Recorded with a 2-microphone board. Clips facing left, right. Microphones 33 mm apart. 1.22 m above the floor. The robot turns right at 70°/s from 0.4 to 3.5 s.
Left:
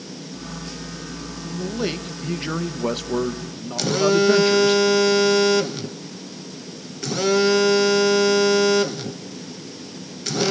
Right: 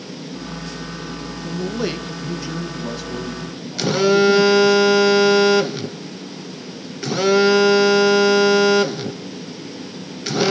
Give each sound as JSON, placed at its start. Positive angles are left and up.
{"t": 1.4, "sound": "a man speaking", "azimuth_deg": -30, "distance_m": 1.4}
{"t": 3.8, "sound": "a phone buzzing", "side_deg": -15, "distance_m": 0.6}